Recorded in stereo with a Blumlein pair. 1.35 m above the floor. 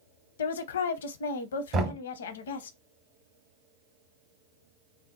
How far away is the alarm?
No alarm in this recording.